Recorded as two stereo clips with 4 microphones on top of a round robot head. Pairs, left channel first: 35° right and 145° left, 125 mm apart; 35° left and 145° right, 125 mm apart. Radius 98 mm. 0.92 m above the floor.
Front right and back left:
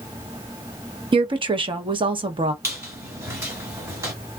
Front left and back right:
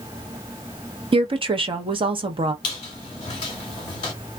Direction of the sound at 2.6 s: 80° left.